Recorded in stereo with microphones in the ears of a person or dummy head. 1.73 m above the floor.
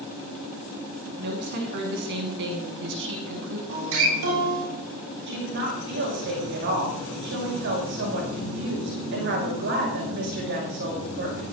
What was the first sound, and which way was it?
A woman speaking, 50° right (ahead or behind).